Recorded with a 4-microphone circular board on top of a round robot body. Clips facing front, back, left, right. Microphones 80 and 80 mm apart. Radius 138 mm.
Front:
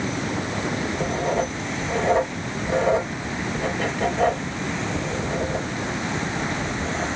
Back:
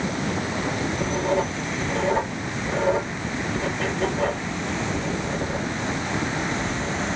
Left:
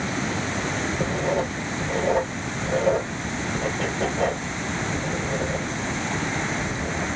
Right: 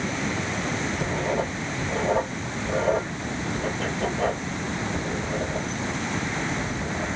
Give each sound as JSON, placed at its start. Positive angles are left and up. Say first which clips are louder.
{"t": 1.0, "sound": "writing", "louder": "back 1 dB, left 3 dB", "azimuth_deg": 65, "distance_m": 3.5}